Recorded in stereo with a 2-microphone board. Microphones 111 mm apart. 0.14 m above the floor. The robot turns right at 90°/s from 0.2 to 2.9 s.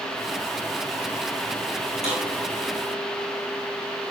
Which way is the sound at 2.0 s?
75° right (ahead or behind).